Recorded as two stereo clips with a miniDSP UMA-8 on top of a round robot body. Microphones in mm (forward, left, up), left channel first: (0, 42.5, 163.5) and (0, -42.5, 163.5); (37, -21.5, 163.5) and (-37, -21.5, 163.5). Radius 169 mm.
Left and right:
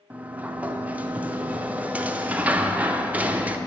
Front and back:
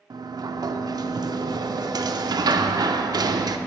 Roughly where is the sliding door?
Behind.